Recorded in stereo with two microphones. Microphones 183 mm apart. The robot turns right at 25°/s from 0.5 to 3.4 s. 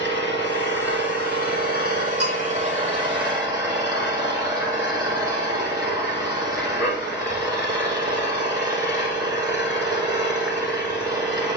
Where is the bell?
65° right (ahead or behind), 5 m; by 2.5 s 70° right (ahead or behind), 5 m.